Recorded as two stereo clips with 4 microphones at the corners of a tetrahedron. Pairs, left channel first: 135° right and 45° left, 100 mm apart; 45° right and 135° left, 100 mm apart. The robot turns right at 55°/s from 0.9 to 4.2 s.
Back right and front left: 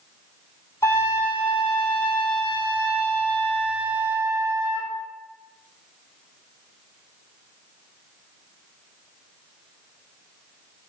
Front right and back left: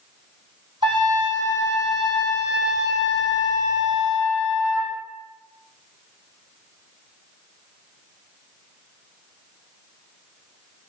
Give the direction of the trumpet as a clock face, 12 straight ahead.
7 o'clock.